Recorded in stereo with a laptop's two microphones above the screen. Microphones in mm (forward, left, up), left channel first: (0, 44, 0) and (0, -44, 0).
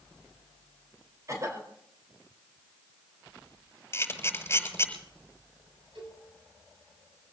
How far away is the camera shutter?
About 6.5 m.